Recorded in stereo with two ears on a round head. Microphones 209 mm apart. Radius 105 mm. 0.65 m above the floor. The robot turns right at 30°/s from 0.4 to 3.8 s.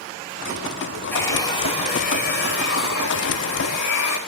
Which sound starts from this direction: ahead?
A hair dryer, at 1.1 s.